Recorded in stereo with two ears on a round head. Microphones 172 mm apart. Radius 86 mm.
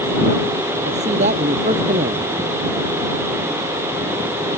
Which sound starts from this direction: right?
A man speaking, at 0.8 s.